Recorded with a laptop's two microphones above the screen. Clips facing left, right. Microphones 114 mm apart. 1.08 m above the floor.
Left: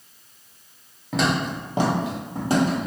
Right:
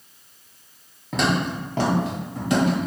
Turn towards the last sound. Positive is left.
turn(degrees=35)  # may be behind; listen again after turning